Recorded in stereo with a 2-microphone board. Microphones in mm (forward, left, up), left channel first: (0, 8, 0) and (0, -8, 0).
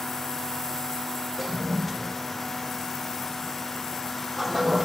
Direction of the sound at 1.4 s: 10° right (ahead or behind).